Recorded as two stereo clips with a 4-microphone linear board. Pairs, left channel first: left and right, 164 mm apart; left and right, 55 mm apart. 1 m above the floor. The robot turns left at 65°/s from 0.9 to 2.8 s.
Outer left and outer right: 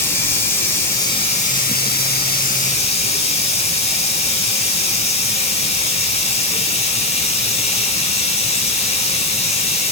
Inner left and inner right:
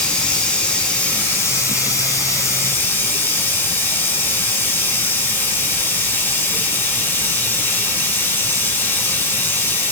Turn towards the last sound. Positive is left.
turn(degrees=40)